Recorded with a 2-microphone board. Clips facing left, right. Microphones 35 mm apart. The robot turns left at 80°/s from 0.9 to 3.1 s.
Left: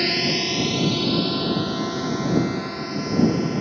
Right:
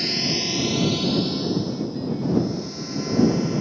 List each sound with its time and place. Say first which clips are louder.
0.0 s a drone: left 3 dB; 30° left (ahead or behind); by 3.6 s 15° left (ahead or behind)